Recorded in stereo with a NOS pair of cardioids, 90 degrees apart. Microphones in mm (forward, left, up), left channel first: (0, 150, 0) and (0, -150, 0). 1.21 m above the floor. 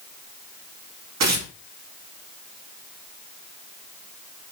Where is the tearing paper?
60° right, 2.0 m.